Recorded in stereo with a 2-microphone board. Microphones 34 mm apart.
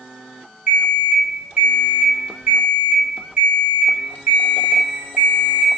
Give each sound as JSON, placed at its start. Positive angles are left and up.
{"t": 0.7, "sound": "an alarm clock", "side_deg": -65, "distance_m": 0.9}